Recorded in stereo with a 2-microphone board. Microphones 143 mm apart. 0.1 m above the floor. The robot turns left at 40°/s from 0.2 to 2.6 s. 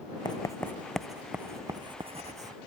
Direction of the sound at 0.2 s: 30° left (ahead or behind).